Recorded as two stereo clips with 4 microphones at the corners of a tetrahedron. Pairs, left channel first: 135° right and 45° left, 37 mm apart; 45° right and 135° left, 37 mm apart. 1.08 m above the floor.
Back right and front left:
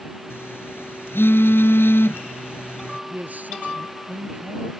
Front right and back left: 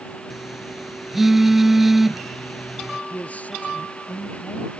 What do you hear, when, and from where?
0.3 s a phone buzzing: 140° right
3.1 s a man speaking: straight ahead